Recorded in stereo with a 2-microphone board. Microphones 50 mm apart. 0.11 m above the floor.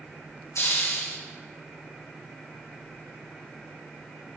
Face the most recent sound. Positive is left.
turn(degrees=75)  # may be behind; listen again after turning